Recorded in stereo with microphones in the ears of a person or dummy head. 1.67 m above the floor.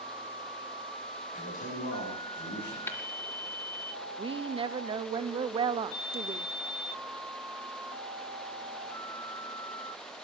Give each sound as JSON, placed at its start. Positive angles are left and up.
{"t": 1.3, "sound": "a man speaking", "side_deg": 45, "distance_m": 7.0}
{"t": 2.9, "sound": "tapping", "side_deg": 10, "distance_m": 1.7}
{"t": 4.2, "sound": "a woman speaking", "side_deg": -25, "distance_m": 0.5}